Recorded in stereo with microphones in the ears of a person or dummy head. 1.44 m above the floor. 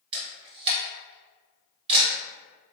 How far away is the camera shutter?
About 0.8 m.